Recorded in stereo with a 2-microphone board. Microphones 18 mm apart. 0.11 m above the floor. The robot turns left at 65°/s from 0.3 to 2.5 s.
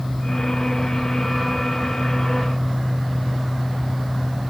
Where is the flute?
No flute in this recording.